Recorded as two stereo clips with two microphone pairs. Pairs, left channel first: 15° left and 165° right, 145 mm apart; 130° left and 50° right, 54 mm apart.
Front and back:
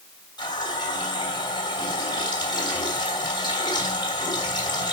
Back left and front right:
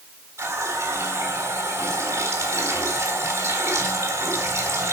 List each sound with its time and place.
0.4 s a running tap: 40° right, 3 m